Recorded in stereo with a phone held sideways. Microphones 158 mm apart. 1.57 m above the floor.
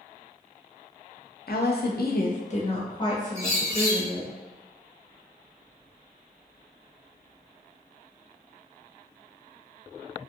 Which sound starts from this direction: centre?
A bird, at 3.4 s.